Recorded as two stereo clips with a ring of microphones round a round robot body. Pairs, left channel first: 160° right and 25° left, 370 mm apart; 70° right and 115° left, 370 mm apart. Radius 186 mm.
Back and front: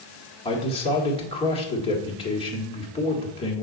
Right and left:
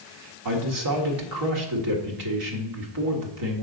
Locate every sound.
0.5 s a man speaking: 130° left, 1.6 m